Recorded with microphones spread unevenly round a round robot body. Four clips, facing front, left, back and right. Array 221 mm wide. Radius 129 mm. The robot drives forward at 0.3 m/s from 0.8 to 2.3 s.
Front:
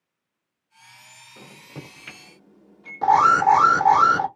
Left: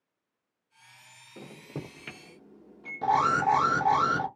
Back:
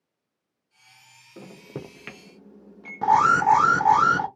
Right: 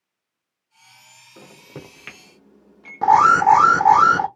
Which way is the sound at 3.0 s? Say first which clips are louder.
Right 11 dB, front 2 dB; 75° right.